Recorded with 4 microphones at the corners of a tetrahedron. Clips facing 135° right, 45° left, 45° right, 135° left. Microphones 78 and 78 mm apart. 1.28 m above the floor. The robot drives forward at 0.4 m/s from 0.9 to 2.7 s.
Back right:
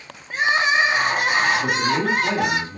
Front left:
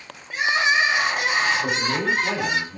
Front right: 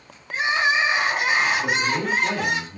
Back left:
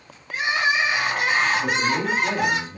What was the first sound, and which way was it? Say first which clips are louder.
Crying: back right 2 dB, front right 1 dB; 95° right.